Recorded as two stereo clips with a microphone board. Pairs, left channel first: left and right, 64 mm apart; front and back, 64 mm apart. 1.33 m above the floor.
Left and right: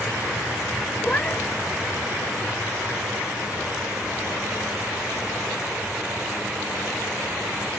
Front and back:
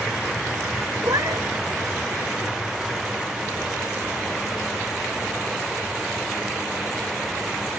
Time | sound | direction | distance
1.0 | a cat meowing | 160° left | ?